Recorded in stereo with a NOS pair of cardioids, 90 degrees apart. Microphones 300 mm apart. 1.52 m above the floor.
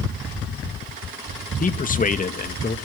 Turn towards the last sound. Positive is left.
turn(degrees=30)